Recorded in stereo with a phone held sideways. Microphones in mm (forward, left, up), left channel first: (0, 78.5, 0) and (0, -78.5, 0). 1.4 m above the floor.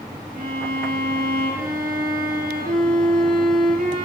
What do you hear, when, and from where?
0.3 s a violin: 70° right (ahead or behind), 4 m